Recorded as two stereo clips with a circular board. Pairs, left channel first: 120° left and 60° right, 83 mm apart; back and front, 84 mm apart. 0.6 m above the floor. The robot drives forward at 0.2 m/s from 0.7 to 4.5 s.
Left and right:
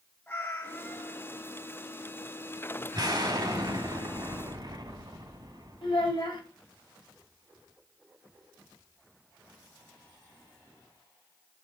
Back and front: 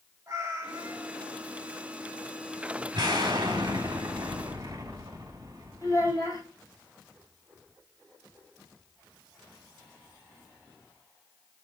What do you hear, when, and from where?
0.3 s a cat meowing: 55° left, 1.5 m; by 1.2 s 60° left, 1.4 m
2.9 s an explosion: 30° right, 1.2 m; by 6.2 s 40° right, 0.9 m
5.8 s a child speaking: 135° left, 1.8 m